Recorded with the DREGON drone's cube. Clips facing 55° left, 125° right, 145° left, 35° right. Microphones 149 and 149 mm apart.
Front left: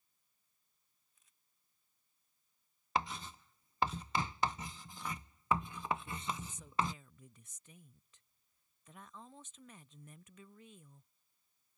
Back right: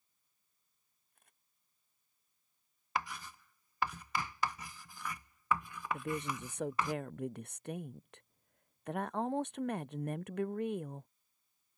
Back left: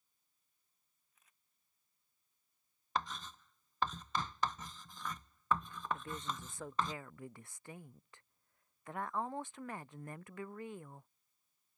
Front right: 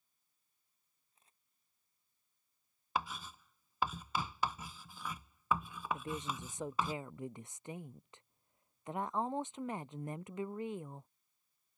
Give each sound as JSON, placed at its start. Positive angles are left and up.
{"t": 1.1, "sound": "a camera shutter", "azimuth_deg": -95}
{"t": 3.0, "sound": "writing", "azimuth_deg": 35}
{"t": 5.9, "sound": "a woman speaking", "azimuth_deg": -105}